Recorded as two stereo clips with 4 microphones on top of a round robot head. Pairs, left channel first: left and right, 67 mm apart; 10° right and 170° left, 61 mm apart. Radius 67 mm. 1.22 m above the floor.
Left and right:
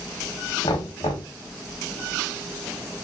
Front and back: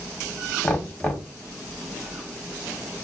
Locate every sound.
0.6 s knocking: 60° left, 1.0 m